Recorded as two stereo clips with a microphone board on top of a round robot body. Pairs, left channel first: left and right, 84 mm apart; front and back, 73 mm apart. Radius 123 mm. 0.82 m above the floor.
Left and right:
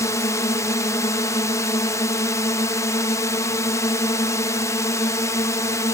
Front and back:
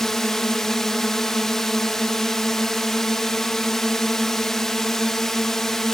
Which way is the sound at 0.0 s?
80° left.